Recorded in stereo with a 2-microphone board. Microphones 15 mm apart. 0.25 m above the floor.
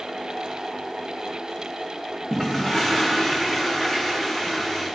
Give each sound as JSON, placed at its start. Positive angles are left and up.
{"t": 2.3, "sound": "a toilet flushing", "side_deg": -50, "distance_m": 5.0}